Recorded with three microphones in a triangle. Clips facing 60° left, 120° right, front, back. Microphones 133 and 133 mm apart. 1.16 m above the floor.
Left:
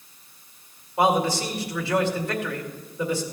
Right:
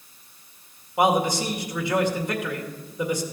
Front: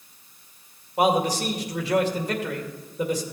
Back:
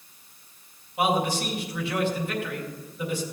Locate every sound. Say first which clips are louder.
1.0 s a man speaking: even, front 3 dB; 50° right, 2 m